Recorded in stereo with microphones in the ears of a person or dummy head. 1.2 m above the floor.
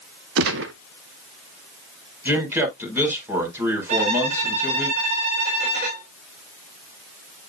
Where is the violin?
55° right (ahead or behind), 4 m.